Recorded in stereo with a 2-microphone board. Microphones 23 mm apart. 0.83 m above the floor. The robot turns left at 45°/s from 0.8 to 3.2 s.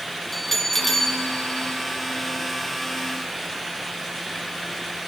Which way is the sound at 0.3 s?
165° left.